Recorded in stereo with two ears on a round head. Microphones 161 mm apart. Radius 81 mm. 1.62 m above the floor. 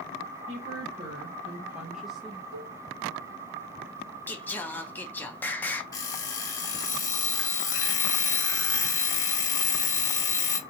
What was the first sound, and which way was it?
A woman speaking, 35° right (ahead or behind).